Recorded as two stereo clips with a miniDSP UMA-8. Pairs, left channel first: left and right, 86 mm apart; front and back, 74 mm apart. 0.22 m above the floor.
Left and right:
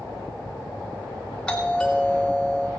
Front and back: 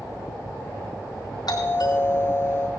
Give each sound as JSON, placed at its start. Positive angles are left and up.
{"t": 1.5, "sound": "a doorbell", "azimuth_deg": 10, "distance_m": 4.5}